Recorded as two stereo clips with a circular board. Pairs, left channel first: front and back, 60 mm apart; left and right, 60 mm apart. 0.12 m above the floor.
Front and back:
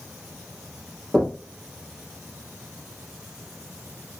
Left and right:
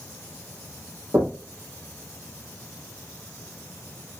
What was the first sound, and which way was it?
Knocking, 85° right.